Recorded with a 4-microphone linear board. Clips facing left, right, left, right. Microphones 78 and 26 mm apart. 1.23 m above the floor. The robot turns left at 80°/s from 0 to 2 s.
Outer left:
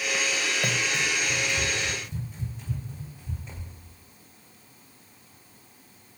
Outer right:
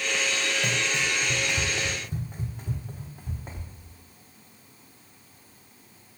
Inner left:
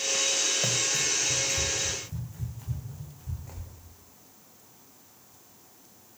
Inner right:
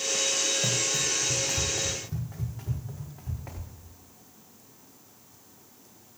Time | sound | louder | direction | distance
0.6 | running footsteps | even, even | 10° left (ahead or behind) | 3 m